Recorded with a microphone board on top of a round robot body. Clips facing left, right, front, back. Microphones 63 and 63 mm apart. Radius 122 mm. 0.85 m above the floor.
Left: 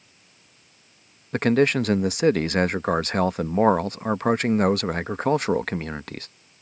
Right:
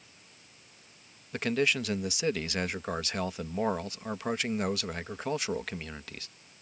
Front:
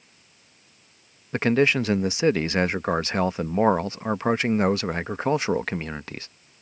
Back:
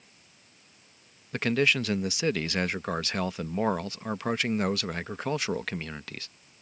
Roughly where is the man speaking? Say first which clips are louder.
Left 9 dB, front 5 dB; ahead left.